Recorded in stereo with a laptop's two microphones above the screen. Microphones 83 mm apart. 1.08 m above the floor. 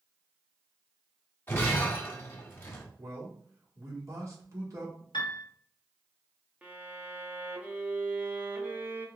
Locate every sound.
1.5 s breaking glass: 30° left (ahead or behind), 1.3 m
3.0 s a man speaking: 40° right (ahead or behind), 2 m
5.1 s a piano: 65° left (ahead or behind), 1.1 m
6.6 s a violin: 15° right (ahead or behind), 0.9 m